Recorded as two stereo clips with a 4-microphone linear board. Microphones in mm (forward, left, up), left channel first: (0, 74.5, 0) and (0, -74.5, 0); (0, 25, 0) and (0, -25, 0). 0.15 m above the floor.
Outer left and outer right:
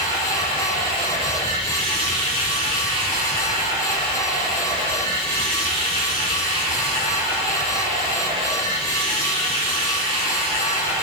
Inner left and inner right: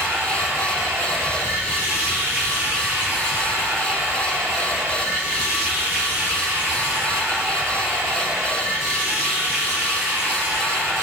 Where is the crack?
I don't hear a crack.